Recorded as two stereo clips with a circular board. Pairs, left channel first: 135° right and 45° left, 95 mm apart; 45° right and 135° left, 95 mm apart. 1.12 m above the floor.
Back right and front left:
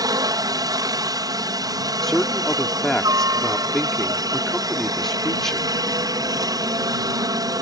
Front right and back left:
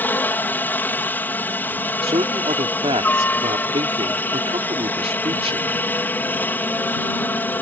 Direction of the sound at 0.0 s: 20° left.